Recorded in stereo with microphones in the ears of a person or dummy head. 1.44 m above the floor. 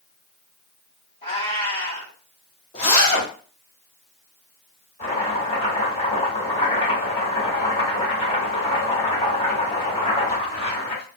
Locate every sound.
1.2 s a cat meowing: 35° left (ahead or behind), 1.7 m
2.7 s a zipper: 30° left (ahead or behind), 1.5 m
5.0 s chopping: 35° left (ahead or behind), 1.6 m